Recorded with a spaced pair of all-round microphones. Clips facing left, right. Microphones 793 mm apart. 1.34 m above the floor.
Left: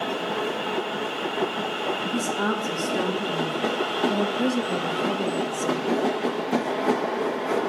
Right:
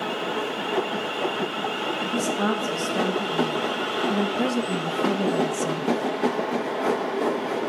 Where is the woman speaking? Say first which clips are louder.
Right 3 dB; 15° right (ahead or behind), 2.5 m; by 5.9 s 65° right (ahead or behind), 1.1 m.